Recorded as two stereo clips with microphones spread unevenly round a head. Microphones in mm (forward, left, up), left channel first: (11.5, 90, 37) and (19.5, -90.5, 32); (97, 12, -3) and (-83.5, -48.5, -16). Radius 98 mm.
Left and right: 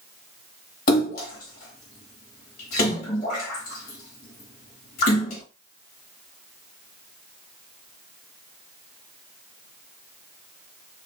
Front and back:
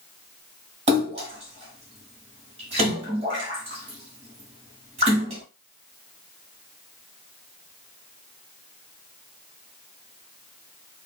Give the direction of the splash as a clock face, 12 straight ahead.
7 o'clock.